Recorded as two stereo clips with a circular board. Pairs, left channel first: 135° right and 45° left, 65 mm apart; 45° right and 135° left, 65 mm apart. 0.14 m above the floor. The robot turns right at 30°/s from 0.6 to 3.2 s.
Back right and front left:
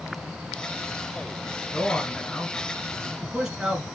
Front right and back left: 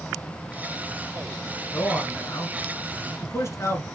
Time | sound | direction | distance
1.7 | a man speaking | 75° right | 1.6 m